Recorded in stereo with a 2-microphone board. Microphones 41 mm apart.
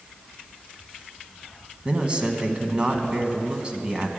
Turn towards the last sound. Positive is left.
turn(degrees=-30)  # may be behind; listen again after turning